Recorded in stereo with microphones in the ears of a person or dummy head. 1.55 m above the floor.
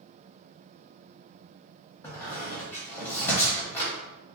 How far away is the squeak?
About 0.9 m.